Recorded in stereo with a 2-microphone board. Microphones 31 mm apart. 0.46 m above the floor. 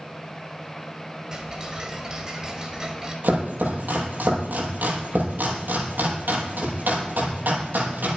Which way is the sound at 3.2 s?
75° right (ahead or behind).